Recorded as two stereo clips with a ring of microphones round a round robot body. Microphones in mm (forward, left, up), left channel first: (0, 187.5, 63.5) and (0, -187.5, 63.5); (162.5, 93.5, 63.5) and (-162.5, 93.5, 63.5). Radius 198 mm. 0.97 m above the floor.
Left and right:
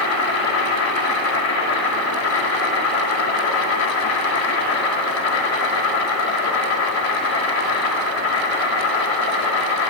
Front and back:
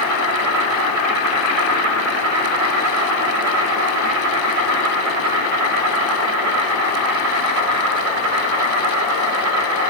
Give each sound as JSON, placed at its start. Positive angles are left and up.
{"t": 0.0, "sound": "an insect", "azimuth_deg": 140, "distance_m": 2.5}